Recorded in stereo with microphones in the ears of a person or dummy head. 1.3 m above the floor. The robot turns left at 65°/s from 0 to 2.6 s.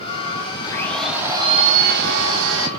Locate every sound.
0.6 s a blender: 20° left, 3.5 m; by 2.7 s 105° right, 3.5 m